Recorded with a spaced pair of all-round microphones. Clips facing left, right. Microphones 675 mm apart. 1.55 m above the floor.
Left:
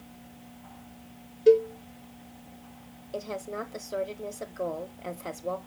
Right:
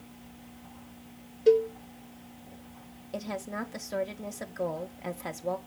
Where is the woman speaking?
30° right (ahead or behind), 0.6 m.